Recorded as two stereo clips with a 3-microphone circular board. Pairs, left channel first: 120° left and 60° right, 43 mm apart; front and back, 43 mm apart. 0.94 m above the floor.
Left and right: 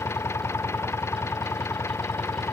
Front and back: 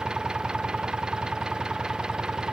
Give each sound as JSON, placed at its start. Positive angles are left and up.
{"t": 0.0, "sound": "an engine running", "azimuth_deg": 105}